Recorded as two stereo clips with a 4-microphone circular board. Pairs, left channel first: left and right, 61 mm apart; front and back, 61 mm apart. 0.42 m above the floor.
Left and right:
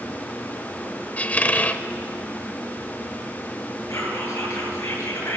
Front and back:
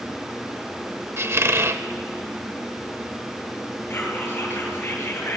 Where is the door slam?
No door slam in this recording.